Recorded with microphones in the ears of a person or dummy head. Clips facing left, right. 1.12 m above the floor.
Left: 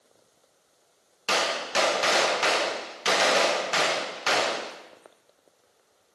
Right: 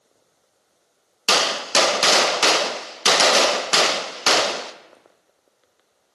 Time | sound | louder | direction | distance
1.3 | a gunshot | right 5 dB | 70° right (ahead or behind) | 0.5 m